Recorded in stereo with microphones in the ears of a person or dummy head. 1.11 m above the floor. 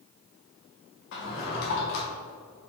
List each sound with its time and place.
1.1 s a drawer: 60° left (ahead or behind), 1.3 m